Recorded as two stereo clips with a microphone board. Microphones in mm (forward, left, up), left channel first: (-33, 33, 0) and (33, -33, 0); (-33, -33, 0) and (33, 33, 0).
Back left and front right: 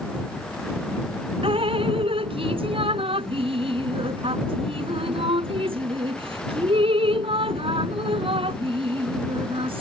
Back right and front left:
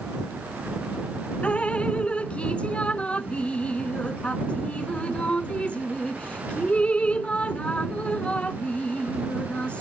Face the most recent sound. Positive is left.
turn(degrees=-55)